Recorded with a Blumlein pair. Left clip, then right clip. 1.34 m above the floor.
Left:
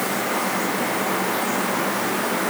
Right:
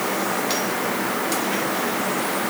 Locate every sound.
Only background noise.